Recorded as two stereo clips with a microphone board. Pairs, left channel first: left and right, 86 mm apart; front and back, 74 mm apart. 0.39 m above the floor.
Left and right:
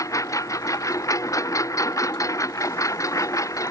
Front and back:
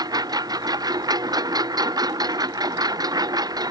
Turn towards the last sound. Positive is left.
turn(degrees=145)